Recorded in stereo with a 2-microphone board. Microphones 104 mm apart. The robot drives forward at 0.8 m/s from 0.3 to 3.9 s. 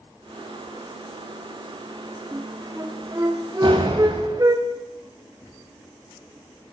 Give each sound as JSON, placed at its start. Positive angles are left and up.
{"t": 2.3, "sound": "a flute", "side_deg": -25, "distance_m": 5.5}
{"t": 3.6, "sound": "a door slam", "side_deg": -45, "distance_m": 5.5}